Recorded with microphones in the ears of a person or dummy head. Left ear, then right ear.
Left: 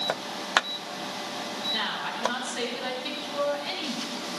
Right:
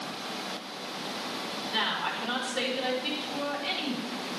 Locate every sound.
1.7 s a woman speaking: 25° right (ahead or behind), 5.5 m